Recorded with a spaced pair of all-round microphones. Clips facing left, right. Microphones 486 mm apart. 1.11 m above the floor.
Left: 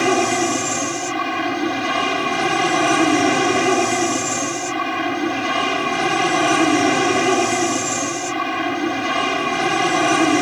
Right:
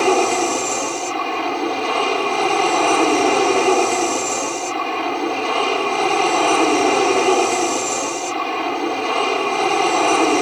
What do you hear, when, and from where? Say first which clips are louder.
0.0 s an aircraft: right 1 dB; 35° left (ahead or behind)